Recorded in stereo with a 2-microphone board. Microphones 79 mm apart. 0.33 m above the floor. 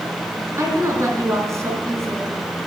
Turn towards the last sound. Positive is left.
turn(degrees=-35)  # may be behind; listen again after turning